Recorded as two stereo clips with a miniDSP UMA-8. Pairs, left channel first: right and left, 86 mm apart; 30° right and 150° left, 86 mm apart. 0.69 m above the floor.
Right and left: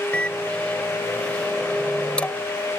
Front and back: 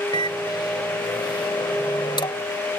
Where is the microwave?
10° right.